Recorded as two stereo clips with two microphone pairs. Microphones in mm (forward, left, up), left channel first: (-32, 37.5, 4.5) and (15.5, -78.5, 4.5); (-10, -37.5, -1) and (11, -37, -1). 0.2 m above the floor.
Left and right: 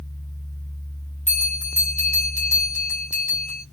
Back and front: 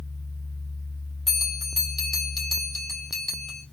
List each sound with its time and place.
1.3 s a bell: 95° left, 2.5 m